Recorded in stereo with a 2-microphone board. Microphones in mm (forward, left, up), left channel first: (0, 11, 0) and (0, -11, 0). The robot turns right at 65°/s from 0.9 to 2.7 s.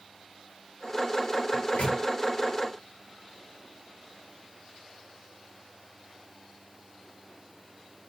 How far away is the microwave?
About 1.3 m.